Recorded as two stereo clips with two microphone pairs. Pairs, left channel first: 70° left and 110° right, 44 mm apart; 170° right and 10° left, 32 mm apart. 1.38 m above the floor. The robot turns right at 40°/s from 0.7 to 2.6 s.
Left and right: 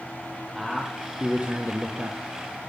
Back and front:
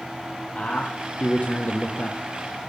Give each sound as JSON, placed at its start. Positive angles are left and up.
{"t": 0.6, "sound": "a man speaking", "azimuth_deg": 165, "distance_m": 0.5}